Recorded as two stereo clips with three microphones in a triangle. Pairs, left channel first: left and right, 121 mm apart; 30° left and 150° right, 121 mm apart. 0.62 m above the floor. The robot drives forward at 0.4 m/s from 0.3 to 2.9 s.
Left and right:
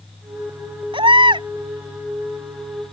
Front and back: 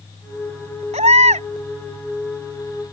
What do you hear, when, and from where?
0.9 s a baby crying: 135° right